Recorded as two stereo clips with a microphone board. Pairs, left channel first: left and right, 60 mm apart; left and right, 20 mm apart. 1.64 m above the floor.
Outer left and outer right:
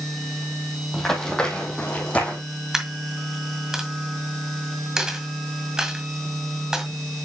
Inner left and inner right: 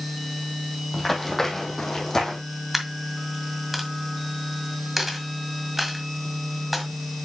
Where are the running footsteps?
5° left (ahead or behind), 2.5 m; by 2.4 s 25° left (ahead or behind), 3 m.